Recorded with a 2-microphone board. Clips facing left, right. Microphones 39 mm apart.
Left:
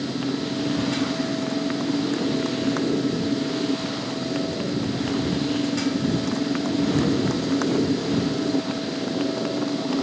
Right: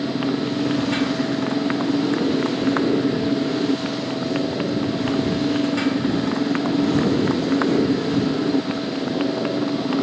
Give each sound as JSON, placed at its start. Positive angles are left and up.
{"t": 0.0, "sound": "a motorcycle", "side_deg": -30}